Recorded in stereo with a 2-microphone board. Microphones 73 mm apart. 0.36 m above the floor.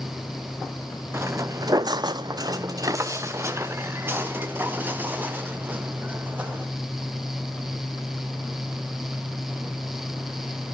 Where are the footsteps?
35° right (ahead or behind), 1.1 m; by 6.7 s 20° right (ahead or behind), 4.5 m.